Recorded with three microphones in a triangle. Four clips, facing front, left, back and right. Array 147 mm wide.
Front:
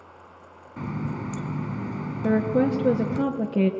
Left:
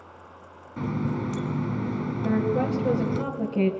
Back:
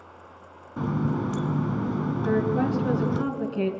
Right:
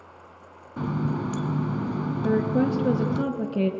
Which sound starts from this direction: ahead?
A woman speaking, at 2.2 s.